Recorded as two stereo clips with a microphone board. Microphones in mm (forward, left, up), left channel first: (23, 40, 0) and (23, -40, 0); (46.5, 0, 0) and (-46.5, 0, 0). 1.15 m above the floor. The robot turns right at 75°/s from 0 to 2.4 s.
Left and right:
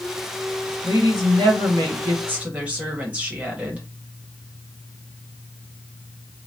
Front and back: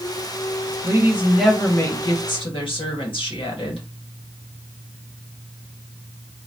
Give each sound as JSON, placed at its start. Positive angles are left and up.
{"t": 0.8, "sound": "a woman speaking", "azimuth_deg": -135, "distance_m": 1.5}